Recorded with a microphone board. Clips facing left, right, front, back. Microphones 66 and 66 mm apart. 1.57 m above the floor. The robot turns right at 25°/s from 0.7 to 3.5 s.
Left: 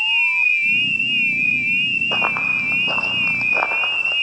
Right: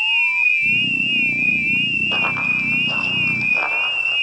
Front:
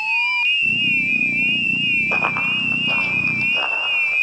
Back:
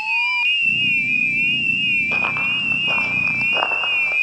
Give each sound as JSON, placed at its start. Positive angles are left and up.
{"t": 2.1, "sound": "running footsteps", "azimuth_deg": 45, "distance_m": 1.7}